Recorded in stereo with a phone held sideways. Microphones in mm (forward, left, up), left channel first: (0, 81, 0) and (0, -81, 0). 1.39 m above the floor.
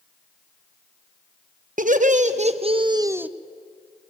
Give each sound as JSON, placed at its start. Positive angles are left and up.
{"t": 1.8, "sound": "laughter", "side_deg": -55, "distance_m": 1.3}